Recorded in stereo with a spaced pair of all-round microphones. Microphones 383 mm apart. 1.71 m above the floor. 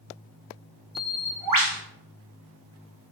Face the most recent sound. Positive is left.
turn(degrees=-60)  # may be behind; listen again after turning